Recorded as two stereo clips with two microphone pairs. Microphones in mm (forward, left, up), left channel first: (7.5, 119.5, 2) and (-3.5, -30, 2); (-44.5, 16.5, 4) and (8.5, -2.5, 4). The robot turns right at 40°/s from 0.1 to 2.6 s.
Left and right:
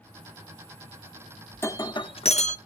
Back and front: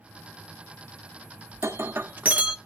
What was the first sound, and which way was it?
Breaking glass, 15° left.